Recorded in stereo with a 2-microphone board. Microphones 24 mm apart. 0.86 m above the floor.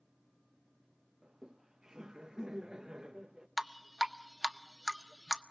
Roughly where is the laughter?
Right.